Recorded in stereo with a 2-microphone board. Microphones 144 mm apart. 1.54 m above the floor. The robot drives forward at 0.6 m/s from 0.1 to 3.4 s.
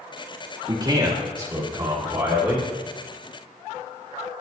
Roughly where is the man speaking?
Right.